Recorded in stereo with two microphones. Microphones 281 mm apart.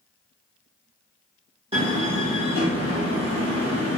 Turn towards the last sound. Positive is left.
turn(degrees=-20)  # may be behind; listen again after turning